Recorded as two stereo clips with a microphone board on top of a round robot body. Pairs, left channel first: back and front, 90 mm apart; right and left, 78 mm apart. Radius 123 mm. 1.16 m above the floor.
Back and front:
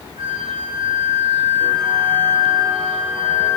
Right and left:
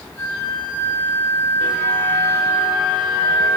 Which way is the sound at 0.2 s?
25° right.